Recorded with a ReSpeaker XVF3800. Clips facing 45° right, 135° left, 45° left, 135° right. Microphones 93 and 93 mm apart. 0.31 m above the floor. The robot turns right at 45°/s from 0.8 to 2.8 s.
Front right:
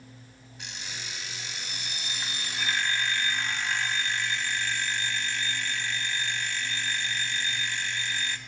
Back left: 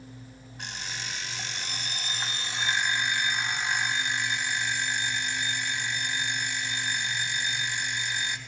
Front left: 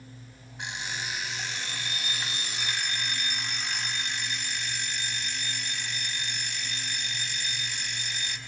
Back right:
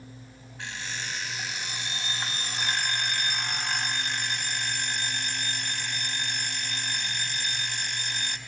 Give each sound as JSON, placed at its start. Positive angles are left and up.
{"t": 0.6, "sound": "an alarm clock", "azimuth_deg": 115, "distance_m": 1.1}